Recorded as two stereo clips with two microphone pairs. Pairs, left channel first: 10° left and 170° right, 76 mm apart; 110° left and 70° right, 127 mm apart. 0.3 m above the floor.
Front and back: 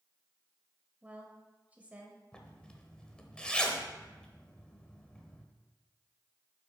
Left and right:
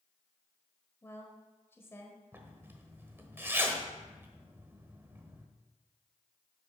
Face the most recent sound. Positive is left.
turn(degrees=-35)